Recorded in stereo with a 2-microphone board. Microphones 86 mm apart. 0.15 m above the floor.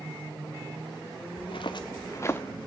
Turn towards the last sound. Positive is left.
turn(degrees=20)  # may be behind; listen again after turning